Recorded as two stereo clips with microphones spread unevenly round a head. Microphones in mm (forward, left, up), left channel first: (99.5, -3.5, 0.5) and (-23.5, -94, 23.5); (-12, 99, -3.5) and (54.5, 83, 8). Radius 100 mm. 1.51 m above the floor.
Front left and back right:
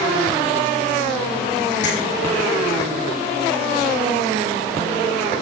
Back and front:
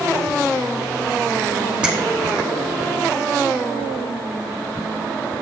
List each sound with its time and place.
1.8 s a finger snap: 60° left, 6.5 m